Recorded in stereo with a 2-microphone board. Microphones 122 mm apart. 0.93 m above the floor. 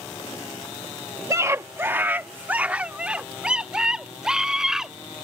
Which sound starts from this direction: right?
A scream, at 1.3 s.